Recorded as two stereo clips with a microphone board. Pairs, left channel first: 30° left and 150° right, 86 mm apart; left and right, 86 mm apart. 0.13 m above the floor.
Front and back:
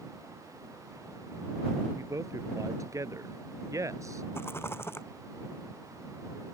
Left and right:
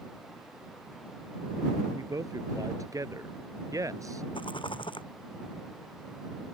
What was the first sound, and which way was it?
A man speaking, 115° right.